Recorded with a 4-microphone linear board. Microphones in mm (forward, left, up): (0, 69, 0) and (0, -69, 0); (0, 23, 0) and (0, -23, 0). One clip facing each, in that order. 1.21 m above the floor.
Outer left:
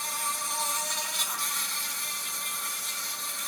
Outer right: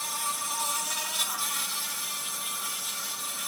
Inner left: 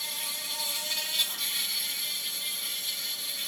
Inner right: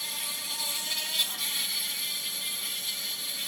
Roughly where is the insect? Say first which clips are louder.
Even, even; centre.